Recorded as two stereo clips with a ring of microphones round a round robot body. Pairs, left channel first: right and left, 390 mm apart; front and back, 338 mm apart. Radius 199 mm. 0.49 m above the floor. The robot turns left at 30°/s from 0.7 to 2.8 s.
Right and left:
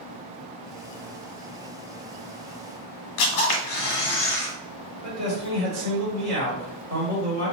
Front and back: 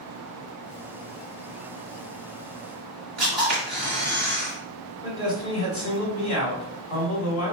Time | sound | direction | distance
3.2 | a camera shutter | 90° right | 0.9 m
5.0 | a man speaking | 35° left | 1.5 m